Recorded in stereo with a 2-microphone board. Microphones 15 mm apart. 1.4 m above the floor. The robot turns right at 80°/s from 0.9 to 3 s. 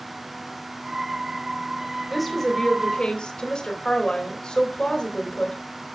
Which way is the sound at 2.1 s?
10° right.